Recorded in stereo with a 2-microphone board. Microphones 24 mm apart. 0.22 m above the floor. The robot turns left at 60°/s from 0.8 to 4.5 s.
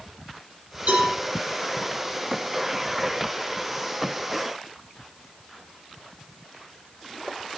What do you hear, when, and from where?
0.9 s a cowbell: 80° right, 6.5 m; by 1.1 s 70° right (ahead or behind), 6.5 m